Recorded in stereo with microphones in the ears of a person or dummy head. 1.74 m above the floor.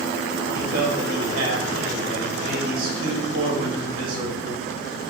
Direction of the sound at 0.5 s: 55° right (ahead or behind).